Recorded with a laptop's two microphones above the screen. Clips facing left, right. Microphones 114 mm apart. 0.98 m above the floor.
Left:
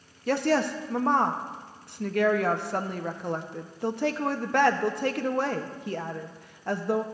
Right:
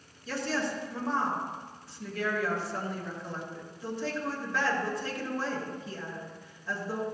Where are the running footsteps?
No running footsteps in this recording.